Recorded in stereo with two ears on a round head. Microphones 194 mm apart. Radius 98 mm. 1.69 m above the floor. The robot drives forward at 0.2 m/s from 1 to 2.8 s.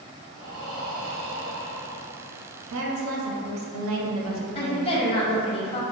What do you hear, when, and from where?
0.3 s breathing: 45° right (ahead or behind), 1.0 m; by 2.1 s 50° right (ahead or behind), 1.0 m
2.7 s a woman speaking: 60° right (ahead or behind), 0.6 m; by 5.0 s 65° right (ahead or behind), 0.6 m
4.5 s a woman speaking: 25° left (ahead or behind), 0.5 m